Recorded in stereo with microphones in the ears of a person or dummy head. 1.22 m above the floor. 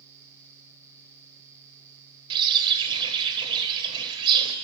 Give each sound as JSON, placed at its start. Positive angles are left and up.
{"t": 2.3, "sound": "a bird", "side_deg": -25, "distance_m": 3.0}